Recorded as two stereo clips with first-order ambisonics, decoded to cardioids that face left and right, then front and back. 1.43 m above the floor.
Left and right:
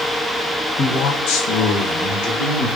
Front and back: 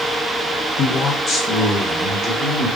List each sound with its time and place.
0.8 s a man speaking: 35° left, 0.6 m; by 2.7 s 90° left, 1.2 m